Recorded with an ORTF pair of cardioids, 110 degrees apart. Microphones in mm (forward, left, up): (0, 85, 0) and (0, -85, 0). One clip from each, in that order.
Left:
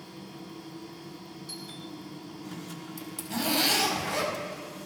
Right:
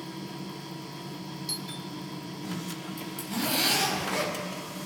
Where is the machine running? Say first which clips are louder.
Right 5 dB; 40° right, 1.0 m.